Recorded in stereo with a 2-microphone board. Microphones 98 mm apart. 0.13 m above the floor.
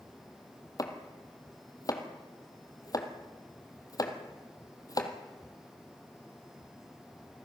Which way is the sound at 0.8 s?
40° left (ahead or behind).